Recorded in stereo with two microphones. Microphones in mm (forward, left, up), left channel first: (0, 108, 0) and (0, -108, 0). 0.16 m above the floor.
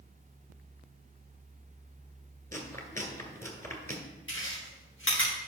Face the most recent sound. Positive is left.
turn(degrees=65)  # may be behind; listen again after turning